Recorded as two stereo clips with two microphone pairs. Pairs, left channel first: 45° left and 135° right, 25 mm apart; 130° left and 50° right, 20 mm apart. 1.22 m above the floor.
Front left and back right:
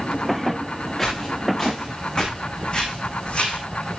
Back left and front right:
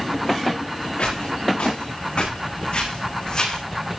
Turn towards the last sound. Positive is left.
turn(degrees=75)